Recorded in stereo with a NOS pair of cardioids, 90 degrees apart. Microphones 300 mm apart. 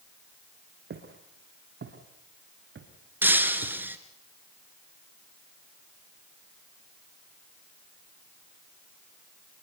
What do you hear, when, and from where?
0.9 s footsteps: 40° right, 5 m
3.2 s breaking glass: 5° right, 3 m